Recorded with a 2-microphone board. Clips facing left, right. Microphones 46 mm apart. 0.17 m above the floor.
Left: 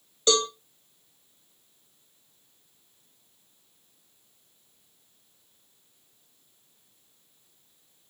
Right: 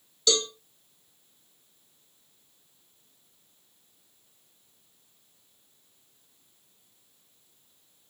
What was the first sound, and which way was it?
A cowbell, 35° left (ahead or behind).